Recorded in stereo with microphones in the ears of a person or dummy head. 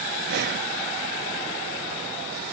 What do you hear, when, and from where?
0.3 s breathing: 50° right (ahead or behind), 0.5 m